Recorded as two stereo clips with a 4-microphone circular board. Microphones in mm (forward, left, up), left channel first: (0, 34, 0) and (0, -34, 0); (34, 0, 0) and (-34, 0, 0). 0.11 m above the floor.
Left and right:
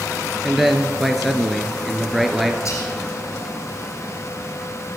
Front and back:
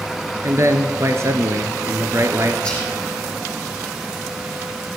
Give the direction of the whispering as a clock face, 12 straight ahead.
10 o'clock.